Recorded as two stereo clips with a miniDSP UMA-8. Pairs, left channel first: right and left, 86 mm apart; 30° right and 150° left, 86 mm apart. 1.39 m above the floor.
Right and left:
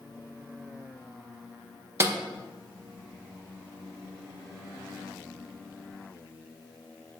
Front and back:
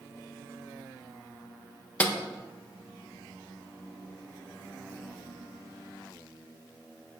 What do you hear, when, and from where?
2.0 s a snare drum: 40° left, 0.7 m